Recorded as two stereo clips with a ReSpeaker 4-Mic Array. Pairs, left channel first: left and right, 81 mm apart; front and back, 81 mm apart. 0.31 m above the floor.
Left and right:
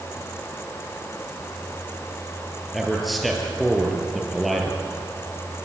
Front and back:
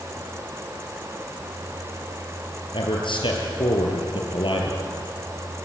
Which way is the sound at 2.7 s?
Straight ahead.